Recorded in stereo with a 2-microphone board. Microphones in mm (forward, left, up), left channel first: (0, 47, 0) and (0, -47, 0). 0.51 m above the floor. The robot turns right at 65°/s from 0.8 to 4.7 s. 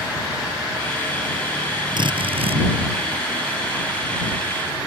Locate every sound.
2.0 s a drill: 125° right; by 2.6 s 80° right